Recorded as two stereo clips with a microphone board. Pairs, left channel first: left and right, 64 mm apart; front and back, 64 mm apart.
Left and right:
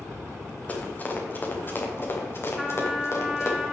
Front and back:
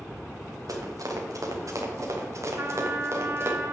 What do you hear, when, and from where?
0.7 s running footsteps: 155° left, 3.5 m; by 3.6 s 130° left, 3.5 m
2.6 s a trumpet: 175° right, 1.2 m